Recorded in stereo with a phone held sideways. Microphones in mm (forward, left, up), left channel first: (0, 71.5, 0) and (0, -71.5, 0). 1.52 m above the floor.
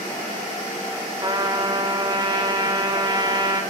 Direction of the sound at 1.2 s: 30° right (ahead or behind).